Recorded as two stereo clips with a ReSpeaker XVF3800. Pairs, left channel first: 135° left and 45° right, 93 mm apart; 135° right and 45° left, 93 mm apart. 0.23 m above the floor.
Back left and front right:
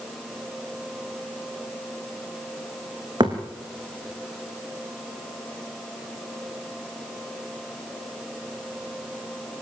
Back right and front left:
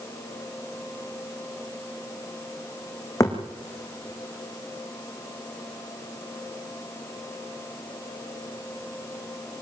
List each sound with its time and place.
3.2 s a thud: 80° right, 4 m